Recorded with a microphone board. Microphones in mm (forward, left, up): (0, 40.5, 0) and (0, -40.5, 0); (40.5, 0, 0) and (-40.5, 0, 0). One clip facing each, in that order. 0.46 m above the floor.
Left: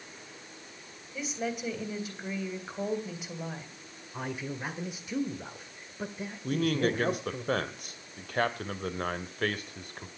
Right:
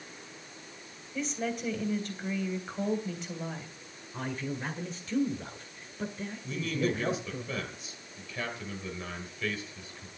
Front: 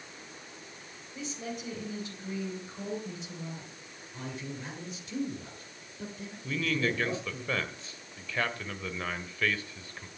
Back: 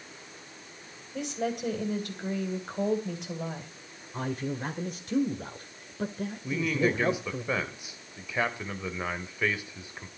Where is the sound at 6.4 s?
110° left, 1.8 m.